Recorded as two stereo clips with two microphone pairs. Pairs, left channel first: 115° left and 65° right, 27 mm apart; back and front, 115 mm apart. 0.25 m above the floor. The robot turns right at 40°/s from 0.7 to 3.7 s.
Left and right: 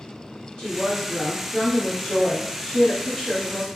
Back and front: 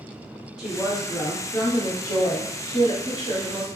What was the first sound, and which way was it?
A woman speaking, 80° left.